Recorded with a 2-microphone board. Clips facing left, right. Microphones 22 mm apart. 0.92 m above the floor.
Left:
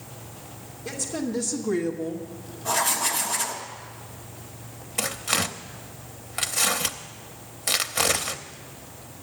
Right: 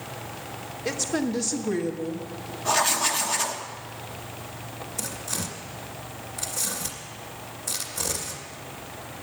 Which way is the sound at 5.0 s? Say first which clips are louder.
Left 8 dB; 85° left.